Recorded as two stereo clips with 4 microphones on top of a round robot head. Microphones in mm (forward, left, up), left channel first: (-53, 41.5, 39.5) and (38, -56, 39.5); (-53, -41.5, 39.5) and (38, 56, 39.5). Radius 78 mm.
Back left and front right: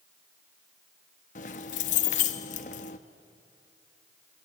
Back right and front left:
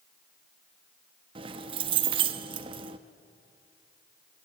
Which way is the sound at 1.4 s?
95° left.